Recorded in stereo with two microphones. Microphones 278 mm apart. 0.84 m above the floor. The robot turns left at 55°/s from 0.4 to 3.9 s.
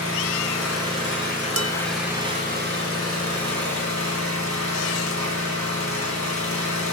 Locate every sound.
0.0 s an engine running: 85° left, 3 m; by 6.9 s 105° right, 3 m
1.6 s dishes clattering: 60° right (ahead or behind), 0.5 m; by 1.7 s 55° right (ahead or behind), 0.5 m